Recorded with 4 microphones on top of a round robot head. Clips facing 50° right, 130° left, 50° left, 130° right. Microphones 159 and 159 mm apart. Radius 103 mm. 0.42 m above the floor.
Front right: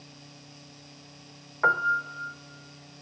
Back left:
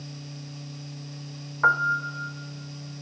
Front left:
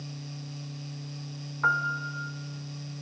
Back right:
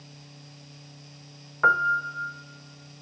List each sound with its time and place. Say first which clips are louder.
1.6 s a piano: back left 1 dB, back right 6 dB; 110° right, 0.7 m